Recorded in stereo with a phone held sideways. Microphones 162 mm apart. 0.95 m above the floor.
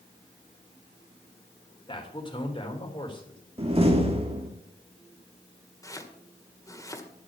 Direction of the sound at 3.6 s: 35° right (ahead or behind).